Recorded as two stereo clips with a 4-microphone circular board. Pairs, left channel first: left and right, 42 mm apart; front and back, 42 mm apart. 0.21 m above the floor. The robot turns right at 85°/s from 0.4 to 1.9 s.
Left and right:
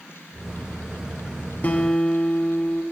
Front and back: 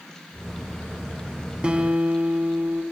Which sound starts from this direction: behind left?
A guitar, at 1.6 s.